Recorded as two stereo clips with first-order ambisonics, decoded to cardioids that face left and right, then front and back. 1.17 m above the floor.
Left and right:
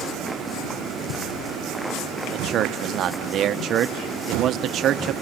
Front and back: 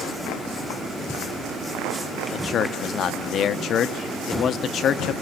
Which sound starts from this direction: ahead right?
A man speaking, at 2.3 s.